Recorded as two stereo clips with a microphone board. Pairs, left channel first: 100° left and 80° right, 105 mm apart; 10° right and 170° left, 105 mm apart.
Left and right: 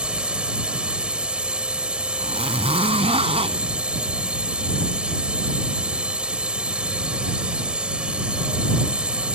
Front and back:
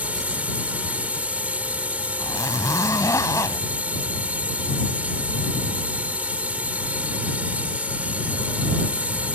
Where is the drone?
140° right.